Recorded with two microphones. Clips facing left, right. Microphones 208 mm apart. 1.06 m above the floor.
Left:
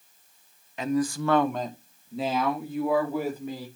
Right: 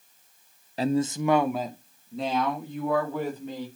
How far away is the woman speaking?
About 0.5 m.